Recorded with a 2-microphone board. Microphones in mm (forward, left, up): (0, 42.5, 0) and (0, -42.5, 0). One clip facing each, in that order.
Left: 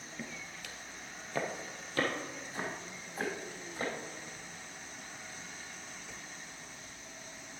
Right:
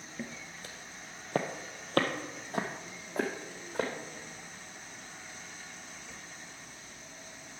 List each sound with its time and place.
0.2 s footsteps: 15° right (ahead or behind), 1.1 m; by 3.9 s 75° right (ahead or behind), 3 m